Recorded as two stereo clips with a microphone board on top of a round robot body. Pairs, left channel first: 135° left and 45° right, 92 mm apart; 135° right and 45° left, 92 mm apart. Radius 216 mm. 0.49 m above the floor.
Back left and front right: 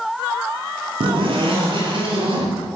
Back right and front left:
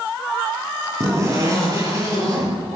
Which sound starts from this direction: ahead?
A zipper, at 1.0 s.